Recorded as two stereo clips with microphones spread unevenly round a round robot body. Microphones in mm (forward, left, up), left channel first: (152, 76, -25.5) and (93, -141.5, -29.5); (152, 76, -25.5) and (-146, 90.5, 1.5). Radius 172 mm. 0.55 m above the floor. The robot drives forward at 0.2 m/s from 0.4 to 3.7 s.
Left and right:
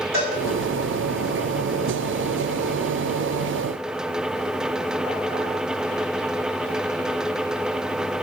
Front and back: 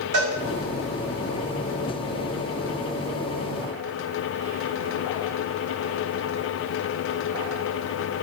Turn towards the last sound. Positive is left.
turn(degrees=-165)